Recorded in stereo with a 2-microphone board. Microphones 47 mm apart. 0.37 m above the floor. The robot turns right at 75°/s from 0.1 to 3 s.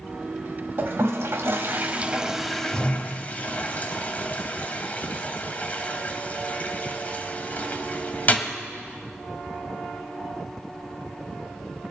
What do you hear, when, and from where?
0.8 s a toilet flushing: 50° right (ahead or behind), 1.0 m; by 8.6 s 35° left (ahead or behind), 1.0 m